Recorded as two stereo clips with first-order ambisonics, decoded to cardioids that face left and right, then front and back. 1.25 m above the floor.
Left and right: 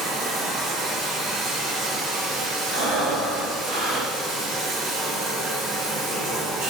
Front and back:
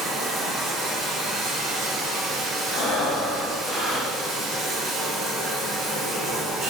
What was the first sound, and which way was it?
Running water, 115° right.